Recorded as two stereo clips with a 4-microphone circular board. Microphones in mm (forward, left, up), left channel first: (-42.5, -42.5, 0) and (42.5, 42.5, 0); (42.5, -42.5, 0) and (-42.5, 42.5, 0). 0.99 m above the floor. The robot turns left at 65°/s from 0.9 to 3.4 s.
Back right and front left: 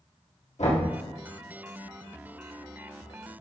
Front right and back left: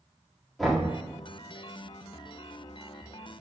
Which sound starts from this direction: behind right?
Knocking, at 0.6 s.